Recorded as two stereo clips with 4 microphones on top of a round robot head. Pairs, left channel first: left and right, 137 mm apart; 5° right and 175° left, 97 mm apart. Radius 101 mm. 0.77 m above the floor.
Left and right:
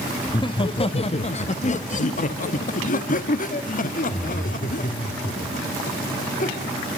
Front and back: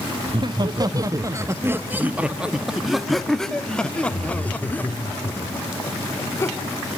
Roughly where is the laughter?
Behind left.